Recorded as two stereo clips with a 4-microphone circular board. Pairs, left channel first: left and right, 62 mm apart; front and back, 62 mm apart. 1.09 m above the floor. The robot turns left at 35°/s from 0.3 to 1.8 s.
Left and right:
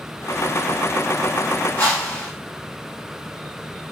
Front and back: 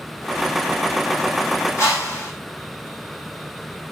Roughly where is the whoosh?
Ahead left.